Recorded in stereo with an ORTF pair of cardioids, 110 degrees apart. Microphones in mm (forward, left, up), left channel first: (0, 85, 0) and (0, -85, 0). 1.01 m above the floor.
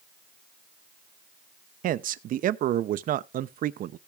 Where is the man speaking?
55° right, 0.7 m.